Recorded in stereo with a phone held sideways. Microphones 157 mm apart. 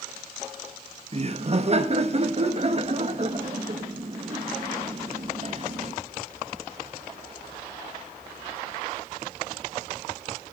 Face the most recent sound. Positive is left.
turn(degrees=-40)  # may be behind; listen again after turning